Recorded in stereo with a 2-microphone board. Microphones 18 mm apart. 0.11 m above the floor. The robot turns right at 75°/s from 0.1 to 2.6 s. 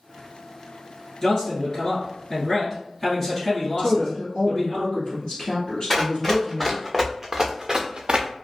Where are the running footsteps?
15° left (ahead or behind), 1.2 m; by 8.3 s 70° right (ahead or behind), 0.6 m.